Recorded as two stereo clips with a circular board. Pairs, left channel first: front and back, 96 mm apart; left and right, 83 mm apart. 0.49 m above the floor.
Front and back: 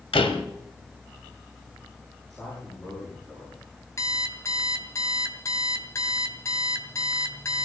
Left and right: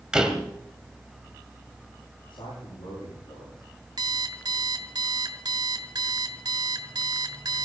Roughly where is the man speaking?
Left.